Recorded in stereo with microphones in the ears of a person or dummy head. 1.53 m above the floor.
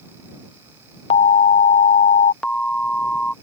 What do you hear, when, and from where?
1.1 s an alarm: 35° left (ahead or behind)
2.4 s an alarm: 5° left (ahead or behind)